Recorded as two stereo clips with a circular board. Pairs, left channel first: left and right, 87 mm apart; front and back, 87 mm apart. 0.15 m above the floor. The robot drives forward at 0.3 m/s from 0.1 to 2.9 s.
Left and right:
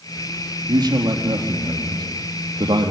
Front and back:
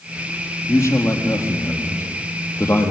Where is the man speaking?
50° right, 4 m; by 2.9 s 60° right, 3.5 m.